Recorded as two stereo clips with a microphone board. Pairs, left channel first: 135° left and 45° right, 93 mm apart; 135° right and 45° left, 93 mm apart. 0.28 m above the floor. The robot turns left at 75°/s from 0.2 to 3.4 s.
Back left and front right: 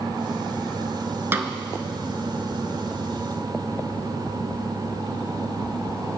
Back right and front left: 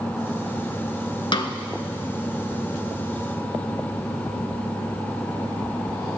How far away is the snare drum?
About 0.5 m.